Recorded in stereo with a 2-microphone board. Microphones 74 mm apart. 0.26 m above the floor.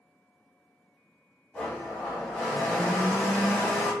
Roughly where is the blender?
Centre.